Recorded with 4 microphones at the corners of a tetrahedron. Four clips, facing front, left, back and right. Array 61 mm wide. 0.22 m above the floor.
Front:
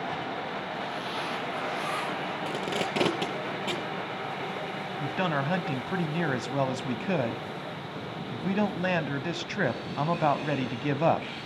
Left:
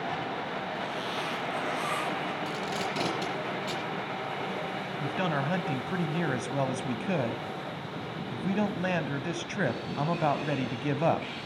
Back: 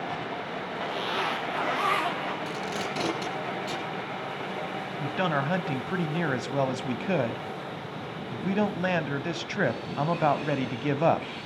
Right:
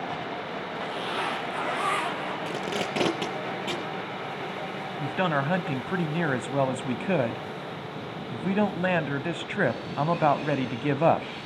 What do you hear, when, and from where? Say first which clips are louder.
0.8 s a zipper: right 3 dB, back 4 dB; 150° right, 5.5 m
2.5 s tape being pulled: right 2 dB, front 1 dB; 45° right, 6 m
5.0 s a man speaking: right 4 dB, back 1 dB; 90° right, 1.0 m